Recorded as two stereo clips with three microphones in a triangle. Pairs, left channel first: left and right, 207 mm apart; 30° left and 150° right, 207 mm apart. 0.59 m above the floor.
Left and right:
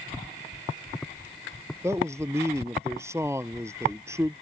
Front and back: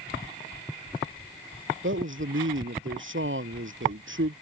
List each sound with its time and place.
1.8 s a man speaking: 165° right